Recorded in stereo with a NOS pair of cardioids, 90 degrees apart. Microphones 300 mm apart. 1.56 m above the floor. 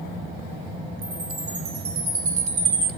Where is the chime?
70° right, 2.5 m.